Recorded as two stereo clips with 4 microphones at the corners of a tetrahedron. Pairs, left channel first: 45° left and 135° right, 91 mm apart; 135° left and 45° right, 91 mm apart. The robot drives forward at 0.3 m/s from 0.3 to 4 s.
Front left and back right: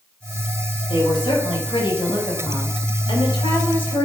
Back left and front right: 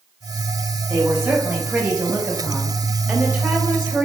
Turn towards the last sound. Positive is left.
turn(degrees=25)